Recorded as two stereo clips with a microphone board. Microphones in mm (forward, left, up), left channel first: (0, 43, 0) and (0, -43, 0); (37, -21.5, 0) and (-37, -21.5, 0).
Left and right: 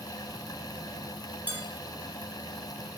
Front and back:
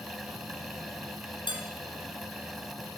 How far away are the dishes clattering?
About 4 m.